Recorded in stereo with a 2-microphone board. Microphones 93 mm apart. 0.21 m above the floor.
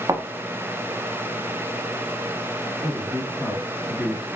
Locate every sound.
0.1 s a thud: 40° right (ahead or behind), 0.6 m
2.8 s a man speaking: 10° left (ahead or behind), 1.6 m